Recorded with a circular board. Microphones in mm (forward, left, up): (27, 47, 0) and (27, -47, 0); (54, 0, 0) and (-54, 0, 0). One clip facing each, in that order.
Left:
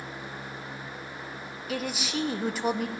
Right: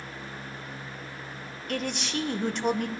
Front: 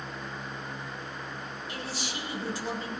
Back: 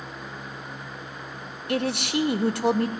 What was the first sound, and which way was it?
A man speaking, 175° left.